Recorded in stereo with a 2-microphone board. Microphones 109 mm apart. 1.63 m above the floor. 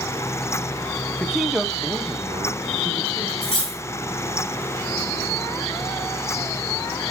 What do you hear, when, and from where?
1.2 s a man speaking: 10° left (ahead or behind), 0.6 m; by 3.3 s 45° right (ahead or behind), 1.5 m
3.4 s cutlery clinking: 50° left (ahead or behind), 1.3 m